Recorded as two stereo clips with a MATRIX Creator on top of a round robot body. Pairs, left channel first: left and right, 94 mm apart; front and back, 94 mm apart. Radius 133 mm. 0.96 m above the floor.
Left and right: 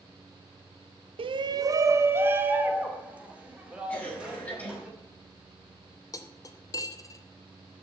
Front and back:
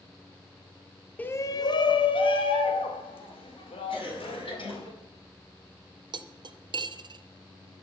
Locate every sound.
1.2 s a shout: 75° right, 0.8 m; by 4.9 s 10° right, 5.5 m
3.9 s a cough: 20° left, 7 m
6.1 s cutlery clinking: 145° left, 0.9 m